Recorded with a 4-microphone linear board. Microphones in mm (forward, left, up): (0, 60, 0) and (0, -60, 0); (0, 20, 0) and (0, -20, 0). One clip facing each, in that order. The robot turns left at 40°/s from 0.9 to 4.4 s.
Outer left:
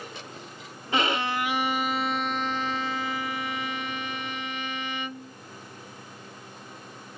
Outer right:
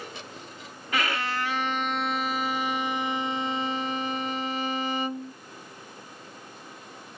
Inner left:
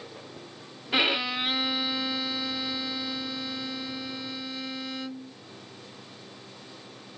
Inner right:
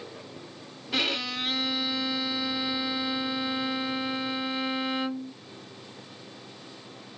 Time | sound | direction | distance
0.9 | a violin | 50° left | ?